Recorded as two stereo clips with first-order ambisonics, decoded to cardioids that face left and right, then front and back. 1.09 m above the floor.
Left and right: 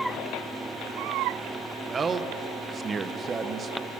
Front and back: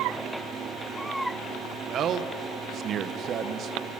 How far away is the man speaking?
About 0.6 m.